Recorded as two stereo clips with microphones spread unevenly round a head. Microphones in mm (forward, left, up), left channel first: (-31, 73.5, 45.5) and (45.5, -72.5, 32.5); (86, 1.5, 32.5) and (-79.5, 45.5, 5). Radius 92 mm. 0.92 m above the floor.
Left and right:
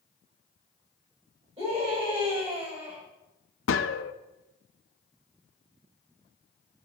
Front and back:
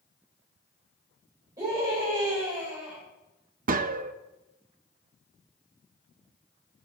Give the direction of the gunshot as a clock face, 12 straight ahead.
8 o'clock.